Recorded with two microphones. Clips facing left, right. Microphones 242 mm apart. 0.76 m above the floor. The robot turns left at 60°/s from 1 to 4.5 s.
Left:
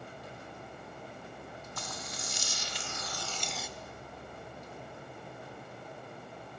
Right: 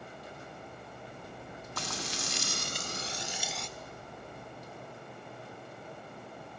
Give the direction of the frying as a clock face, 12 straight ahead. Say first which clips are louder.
Right 6 dB; 2 o'clock.